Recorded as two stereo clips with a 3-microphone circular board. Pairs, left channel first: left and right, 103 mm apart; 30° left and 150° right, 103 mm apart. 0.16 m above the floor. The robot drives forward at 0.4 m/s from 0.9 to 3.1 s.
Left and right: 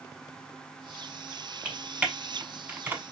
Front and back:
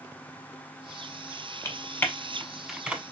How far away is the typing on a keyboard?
About 0.8 m.